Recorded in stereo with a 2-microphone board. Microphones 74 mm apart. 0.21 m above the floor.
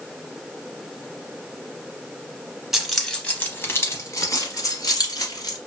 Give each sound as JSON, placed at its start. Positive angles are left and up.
{"t": 2.7, "sound": "keys jangling", "side_deg": -5, "distance_m": 0.8}